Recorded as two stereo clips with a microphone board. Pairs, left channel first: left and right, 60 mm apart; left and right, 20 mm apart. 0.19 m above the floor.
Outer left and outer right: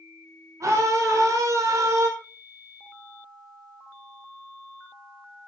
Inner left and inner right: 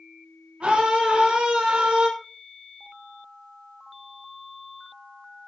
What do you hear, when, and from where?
0.6 s a scream: 65° right (ahead or behind), 4.5 m; by 2.1 s 70° right (ahead or behind), 4 m